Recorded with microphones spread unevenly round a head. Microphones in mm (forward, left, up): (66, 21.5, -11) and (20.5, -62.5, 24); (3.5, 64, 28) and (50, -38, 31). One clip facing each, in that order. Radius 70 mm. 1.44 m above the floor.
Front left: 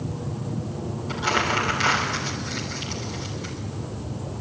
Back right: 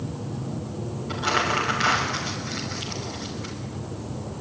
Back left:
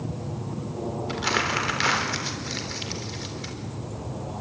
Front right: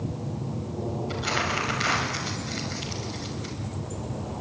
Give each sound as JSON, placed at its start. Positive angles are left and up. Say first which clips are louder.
{"t": 1.1, "sound": "crumpling", "louder": "even, back left 4 dB", "azimuth_deg": 135, "distance_m": 3.5}